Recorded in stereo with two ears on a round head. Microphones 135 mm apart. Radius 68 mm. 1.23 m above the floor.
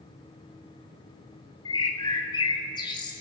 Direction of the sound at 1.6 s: 30° left (ahead or behind).